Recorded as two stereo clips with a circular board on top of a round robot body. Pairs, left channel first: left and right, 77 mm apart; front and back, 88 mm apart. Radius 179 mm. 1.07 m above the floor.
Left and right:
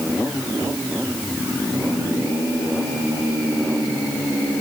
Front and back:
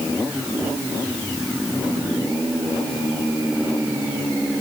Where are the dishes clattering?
I don't hear dishes clattering.